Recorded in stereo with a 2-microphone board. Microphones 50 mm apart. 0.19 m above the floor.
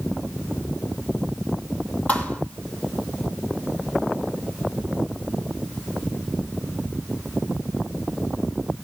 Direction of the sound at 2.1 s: 25° left (ahead or behind).